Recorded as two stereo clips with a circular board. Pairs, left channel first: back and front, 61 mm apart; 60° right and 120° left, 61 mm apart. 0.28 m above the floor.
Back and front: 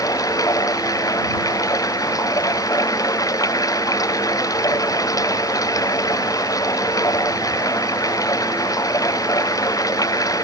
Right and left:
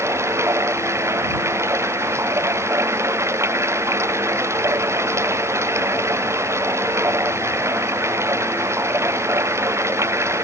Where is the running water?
165° left.